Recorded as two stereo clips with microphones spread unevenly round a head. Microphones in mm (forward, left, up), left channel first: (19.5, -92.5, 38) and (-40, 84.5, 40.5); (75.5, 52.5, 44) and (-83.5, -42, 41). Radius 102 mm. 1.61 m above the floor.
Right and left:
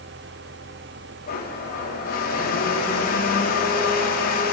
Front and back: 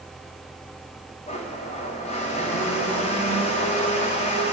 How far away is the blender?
About 4 m.